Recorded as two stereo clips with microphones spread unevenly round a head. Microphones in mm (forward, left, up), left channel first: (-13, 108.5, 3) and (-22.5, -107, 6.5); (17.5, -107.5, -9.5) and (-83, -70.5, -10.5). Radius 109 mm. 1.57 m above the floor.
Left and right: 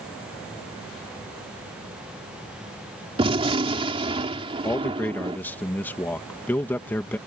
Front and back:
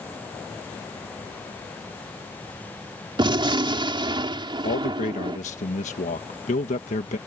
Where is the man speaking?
5° left.